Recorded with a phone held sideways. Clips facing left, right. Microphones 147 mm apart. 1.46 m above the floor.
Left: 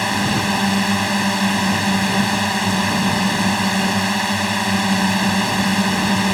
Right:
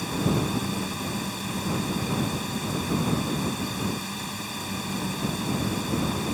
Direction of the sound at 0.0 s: 85° left.